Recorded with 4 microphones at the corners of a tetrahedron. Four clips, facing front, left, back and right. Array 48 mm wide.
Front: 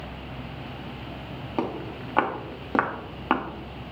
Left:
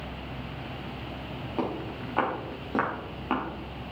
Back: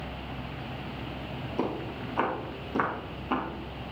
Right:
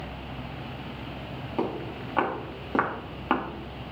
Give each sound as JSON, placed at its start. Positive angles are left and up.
{"t": 1.6, "sound": "footsteps", "azimuth_deg": 0, "distance_m": 3.5}